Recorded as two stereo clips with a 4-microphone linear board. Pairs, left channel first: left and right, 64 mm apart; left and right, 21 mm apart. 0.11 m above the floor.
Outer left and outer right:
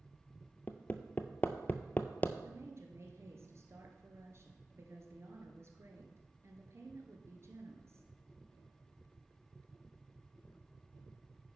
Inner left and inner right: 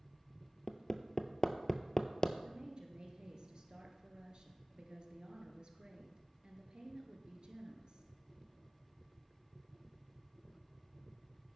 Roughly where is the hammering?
Left.